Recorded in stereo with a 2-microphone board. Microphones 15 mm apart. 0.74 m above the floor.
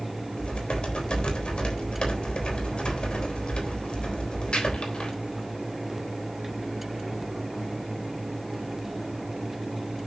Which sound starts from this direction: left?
Typing on a keyboard, at 0.4 s.